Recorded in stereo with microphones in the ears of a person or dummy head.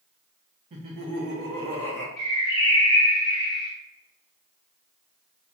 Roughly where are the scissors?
No scissors in this recording.